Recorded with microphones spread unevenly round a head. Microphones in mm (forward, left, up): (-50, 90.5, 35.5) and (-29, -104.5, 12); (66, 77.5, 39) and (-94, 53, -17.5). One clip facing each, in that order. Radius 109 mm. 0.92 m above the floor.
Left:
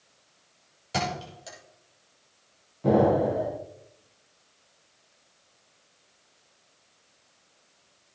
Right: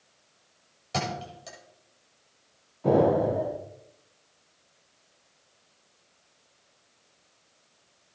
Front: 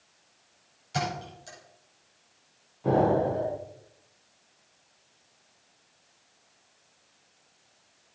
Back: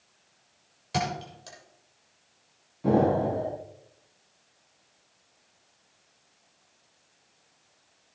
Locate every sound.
0.9 s a thud: 175° left, 6.5 m
2.8 s an explosion: 155° left, 5.5 m